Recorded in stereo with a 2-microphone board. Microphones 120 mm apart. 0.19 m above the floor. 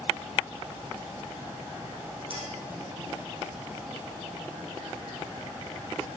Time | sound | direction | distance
2.3 | a clink | 50° right (ahead or behind) | 6 m